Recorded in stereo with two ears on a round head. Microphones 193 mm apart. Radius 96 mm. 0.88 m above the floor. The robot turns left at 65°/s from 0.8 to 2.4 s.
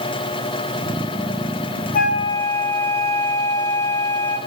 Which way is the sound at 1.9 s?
40° left (ahead or behind).